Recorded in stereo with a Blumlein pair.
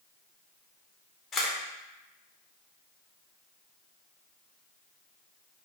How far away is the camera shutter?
About 0.6 m.